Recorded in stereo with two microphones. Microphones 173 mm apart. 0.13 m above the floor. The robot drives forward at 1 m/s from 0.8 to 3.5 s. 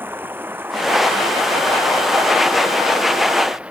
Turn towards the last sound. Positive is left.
turn(degrees=-5)  # may be behind; listen again after turning